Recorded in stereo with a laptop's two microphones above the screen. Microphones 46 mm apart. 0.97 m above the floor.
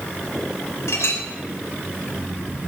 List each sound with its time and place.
0.9 s a clink: 85° left, 3 m